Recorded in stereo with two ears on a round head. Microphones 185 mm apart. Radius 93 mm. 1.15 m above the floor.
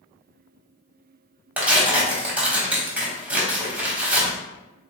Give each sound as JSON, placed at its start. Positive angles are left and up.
{"t": 1.6, "sound": "tearing paper", "side_deg": -5, "distance_m": 1.0}